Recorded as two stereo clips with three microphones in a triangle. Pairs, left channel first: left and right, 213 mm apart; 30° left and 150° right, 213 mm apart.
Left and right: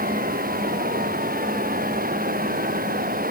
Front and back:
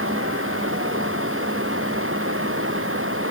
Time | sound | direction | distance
0.0 | running water | 140° right | ?